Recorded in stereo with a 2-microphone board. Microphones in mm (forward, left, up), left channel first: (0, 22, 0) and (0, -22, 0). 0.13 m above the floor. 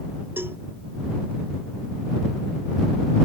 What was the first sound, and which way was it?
A cowbell, 60° right (ahead or behind).